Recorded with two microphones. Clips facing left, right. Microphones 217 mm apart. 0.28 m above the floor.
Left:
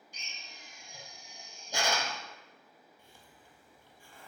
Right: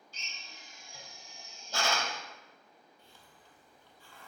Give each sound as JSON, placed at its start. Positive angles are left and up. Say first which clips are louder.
{"t": 0.1, "sound": "a drill", "louder": "even", "side_deg": 15, "distance_m": 1.2}
{"t": 3.0, "sound": "a hiss", "louder": "left 1 dB", "side_deg": 15, "distance_m": 1.5}